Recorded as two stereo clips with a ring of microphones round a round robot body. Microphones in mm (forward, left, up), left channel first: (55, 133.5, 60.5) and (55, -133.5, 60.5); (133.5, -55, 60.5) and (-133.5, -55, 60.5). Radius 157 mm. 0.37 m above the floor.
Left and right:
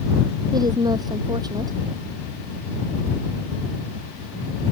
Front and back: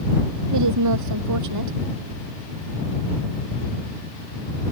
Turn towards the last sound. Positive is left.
turn(degrees=-170)